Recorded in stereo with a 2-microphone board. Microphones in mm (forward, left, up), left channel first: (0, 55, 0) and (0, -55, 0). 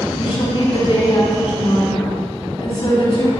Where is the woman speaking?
55° left (ahead or behind), 3.5 m.